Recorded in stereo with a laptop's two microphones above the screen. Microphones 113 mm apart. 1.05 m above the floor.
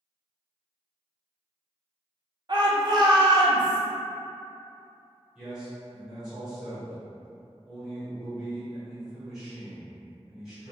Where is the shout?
40° right (ahead or behind), 0.7 m.